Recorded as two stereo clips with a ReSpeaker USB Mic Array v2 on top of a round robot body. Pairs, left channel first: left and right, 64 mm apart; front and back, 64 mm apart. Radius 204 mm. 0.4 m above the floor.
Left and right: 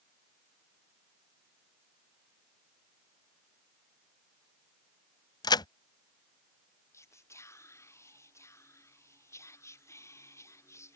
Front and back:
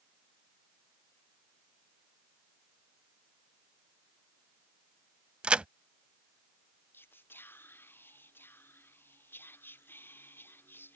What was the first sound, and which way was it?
A crack, 105° left.